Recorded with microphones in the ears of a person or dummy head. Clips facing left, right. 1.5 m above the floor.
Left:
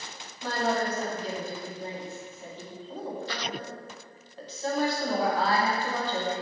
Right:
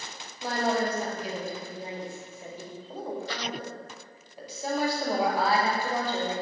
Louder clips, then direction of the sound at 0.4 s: Right 1 dB; 5° right (ahead or behind).